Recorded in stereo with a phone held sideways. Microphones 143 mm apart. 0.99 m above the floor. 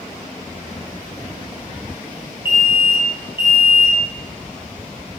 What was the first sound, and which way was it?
An alarm, 35° left (ahead or behind).